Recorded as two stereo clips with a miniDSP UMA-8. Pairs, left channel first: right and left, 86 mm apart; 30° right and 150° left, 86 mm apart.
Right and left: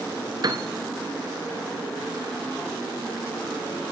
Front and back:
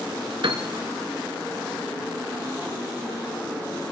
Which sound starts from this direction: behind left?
A piano, at 0.4 s.